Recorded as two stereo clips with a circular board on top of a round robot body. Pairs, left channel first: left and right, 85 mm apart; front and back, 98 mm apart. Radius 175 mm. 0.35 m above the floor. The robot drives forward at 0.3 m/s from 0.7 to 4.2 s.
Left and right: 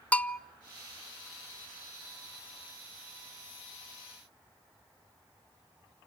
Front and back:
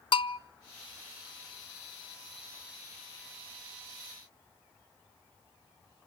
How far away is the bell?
About 0.7 m.